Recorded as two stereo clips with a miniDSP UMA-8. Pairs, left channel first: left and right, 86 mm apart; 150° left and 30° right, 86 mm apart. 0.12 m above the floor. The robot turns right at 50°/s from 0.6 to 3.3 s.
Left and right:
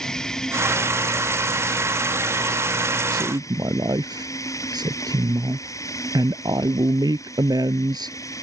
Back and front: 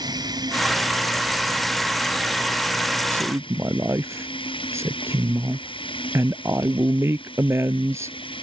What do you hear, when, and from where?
0.0 s running water: 10° left; by 8.4 s 145° left
3.1 s a woman speaking: 90° right; by 8.4 s 80° right